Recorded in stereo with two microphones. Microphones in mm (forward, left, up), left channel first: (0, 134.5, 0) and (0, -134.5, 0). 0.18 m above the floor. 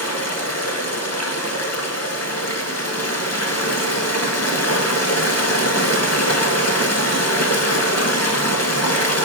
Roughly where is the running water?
Left.